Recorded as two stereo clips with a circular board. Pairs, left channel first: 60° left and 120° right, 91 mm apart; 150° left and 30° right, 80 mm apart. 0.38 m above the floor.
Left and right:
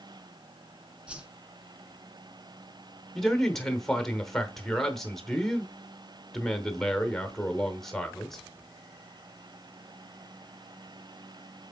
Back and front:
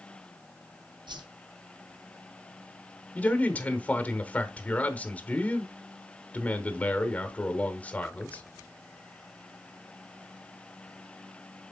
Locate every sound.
1.1 s a whoosh: 40° right, 1.0 m
3.1 s a man speaking: 135° left, 0.9 m